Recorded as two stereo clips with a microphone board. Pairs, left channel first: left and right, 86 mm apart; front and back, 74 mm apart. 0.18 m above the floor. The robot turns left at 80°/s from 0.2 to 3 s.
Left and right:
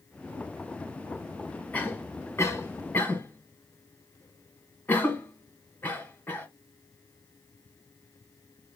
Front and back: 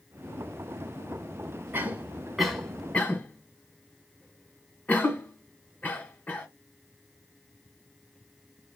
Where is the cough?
145° left, 1.4 m; by 6.5 s 45° left, 1.4 m.